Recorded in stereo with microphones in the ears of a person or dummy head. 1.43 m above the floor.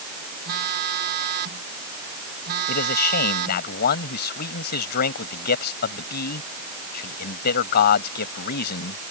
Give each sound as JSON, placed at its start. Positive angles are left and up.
{"t": 0.5, "sound": "a phone buzzing", "side_deg": -60}
{"t": 2.7, "sound": "a man speaking", "side_deg": 55}